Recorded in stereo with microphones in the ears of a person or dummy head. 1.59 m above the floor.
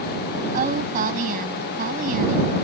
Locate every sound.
0.5 s a woman speaking: 45° right (ahead or behind)